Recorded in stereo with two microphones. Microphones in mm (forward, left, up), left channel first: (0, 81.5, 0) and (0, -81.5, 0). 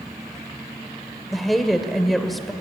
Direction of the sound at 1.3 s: Centre (ahead or behind).